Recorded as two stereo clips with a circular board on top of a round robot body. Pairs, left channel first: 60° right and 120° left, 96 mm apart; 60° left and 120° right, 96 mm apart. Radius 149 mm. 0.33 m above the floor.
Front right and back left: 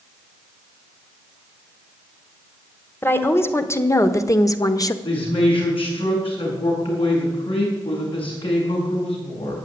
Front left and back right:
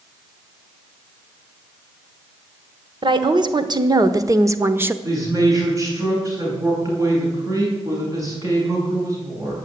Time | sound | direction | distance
3.0 | a woman speaking | 120° right | 1.6 m
5.0 | a man speaking | 70° right | 6 m